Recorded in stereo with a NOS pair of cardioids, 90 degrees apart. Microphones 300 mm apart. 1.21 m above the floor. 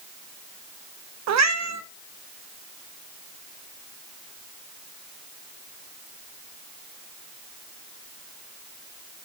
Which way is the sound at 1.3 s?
65° right.